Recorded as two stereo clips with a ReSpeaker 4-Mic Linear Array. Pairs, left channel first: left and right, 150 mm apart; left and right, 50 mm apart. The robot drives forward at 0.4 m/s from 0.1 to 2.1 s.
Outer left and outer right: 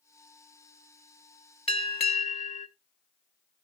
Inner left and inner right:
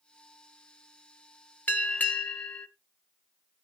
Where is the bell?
40° left (ahead or behind), 1.2 m; by 2.7 s 45° left (ahead or behind), 1.1 m.